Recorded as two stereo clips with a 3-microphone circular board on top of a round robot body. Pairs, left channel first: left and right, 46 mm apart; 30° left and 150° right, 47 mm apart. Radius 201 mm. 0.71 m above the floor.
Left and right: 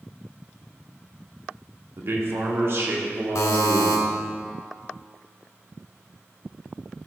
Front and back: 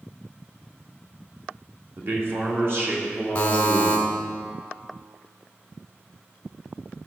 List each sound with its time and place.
2.0 s a man speaking: 115° right, 1.9 m; by 4.1 s 120° right, 3 m
3.4 s a buzzer: 95° left, 1.2 m